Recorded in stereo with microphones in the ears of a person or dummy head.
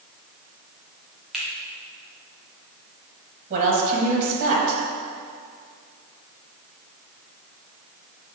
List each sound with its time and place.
1.3 s a finger snap: 5° right (ahead or behind), 1.7 m
3.5 s a woman speaking: 50° right (ahead or behind), 1.1 m